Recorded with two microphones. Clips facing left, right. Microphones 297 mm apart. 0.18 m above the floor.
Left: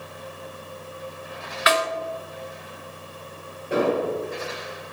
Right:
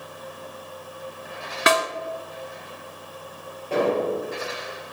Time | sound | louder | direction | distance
1.7 | a snare drum | right 1 dB | 55° right (ahead or behind) | 0.9 m
3.7 | an explosion | even | 15° left (ahead or behind) | 3.5 m